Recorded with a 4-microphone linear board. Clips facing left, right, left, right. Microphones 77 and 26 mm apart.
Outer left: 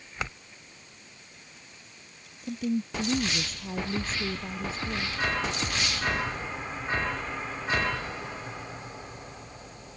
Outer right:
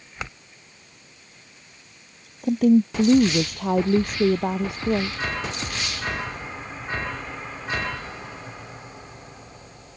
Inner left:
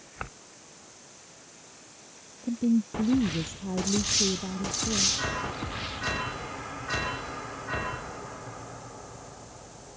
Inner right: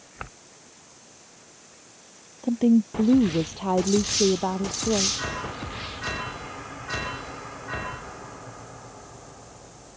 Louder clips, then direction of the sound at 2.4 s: Outer right 13 dB, inner right 6 dB; 60° right (ahead or behind).